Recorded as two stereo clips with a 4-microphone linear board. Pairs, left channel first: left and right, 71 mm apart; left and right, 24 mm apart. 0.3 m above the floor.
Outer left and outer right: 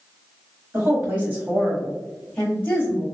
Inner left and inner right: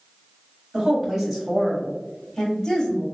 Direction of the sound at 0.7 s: 35° right (ahead or behind).